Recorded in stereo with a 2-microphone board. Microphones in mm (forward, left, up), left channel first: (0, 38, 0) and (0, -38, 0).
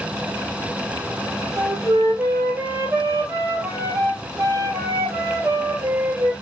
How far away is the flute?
About 2.5 m.